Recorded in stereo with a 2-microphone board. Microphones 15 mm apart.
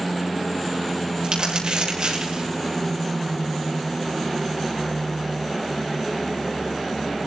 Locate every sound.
1.2 s crumpling: 65° right (ahead or behind), 6.5 m